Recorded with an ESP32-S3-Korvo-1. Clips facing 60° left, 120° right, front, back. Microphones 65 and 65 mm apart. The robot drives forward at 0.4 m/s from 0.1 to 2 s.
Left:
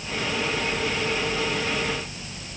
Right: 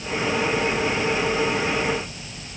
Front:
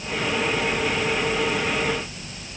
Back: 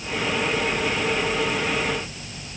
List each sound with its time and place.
Only background noise.